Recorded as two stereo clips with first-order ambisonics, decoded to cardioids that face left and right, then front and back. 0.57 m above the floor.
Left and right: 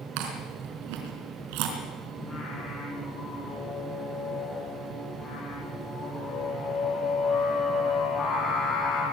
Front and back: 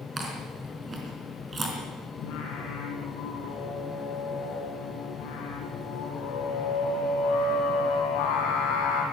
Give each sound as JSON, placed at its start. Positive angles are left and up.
{"t": 0.2, "sound": "chewing", "azimuth_deg": -105, "distance_m": 4.0}
{"t": 2.2, "sound": "singing", "azimuth_deg": 25, "distance_m": 5.5}